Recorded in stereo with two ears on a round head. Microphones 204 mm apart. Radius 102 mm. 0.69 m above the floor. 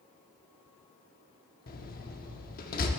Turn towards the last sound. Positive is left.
turn(degrees=40)  # may be behind; listen again after turning